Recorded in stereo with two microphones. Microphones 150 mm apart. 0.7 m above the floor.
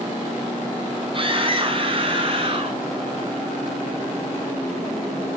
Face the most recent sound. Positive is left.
turn(degrees=-40)  # may be behind; listen again after turning